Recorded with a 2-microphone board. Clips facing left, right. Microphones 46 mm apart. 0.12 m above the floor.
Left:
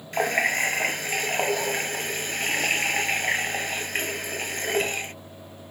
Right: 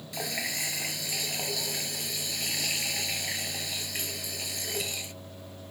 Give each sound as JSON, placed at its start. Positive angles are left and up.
{"t": 0.1, "sound": "a running tap", "side_deg": 50}